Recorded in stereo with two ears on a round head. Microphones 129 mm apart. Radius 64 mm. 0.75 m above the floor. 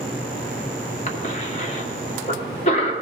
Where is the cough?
45° left (ahead or behind), 1.5 m.